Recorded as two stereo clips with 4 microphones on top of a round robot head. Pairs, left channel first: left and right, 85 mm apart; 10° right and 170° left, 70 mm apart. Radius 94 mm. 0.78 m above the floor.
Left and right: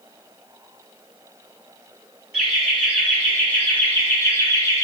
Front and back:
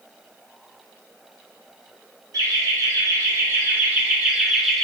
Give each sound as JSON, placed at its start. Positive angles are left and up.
{"t": 2.3, "sound": "laughter", "azimuth_deg": 175, "distance_m": 1.4}